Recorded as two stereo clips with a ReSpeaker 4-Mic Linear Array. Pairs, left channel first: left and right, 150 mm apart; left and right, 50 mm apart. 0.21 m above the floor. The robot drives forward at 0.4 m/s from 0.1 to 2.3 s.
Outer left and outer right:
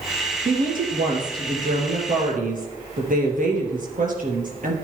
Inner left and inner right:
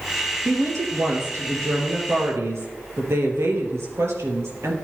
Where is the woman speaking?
75° right (ahead or behind), 4 m; by 4.7 s 70° right (ahead or behind), 4 m.